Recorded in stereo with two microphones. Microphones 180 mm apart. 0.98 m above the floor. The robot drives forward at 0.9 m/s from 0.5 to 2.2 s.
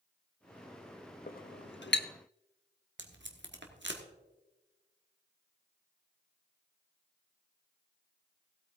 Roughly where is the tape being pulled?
Right.